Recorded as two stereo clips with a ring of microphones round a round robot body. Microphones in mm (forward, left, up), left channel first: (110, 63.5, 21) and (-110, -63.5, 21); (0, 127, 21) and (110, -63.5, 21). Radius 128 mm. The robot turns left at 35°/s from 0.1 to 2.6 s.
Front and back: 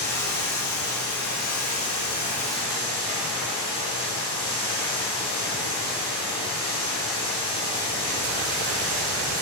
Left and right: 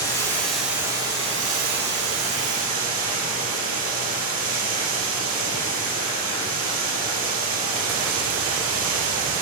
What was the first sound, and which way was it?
Running water, 45° left.